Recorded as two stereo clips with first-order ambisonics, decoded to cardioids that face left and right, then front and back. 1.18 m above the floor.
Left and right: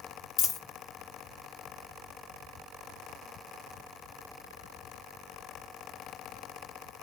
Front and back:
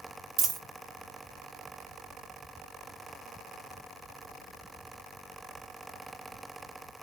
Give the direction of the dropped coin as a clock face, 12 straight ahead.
8 o'clock.